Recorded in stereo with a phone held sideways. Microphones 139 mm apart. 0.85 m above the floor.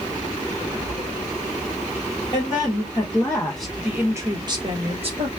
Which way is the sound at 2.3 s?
40° left (ahead or behind).